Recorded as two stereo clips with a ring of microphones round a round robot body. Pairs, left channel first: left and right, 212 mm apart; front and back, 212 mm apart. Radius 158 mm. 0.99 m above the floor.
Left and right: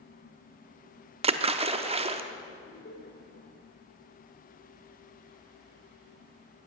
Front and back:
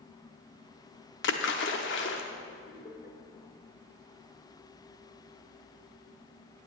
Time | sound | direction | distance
1.2 | a splash | 35° right | 0.7 m
2.6 | laughter | 45° left | 4 m